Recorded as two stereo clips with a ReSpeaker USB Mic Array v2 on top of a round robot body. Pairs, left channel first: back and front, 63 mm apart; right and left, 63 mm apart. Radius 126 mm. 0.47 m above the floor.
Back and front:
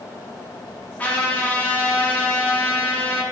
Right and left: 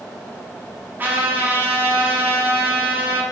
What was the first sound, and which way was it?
A trumpet, 130° left.